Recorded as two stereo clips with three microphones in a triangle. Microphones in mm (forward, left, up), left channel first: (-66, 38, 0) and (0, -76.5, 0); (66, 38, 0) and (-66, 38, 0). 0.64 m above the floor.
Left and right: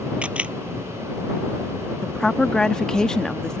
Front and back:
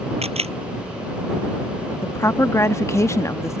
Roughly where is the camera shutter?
Behind right.